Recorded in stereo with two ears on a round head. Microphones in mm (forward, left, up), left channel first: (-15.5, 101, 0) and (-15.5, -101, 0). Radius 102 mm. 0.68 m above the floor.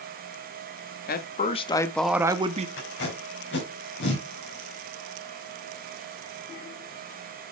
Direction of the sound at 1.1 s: 45° left (ahead or behind).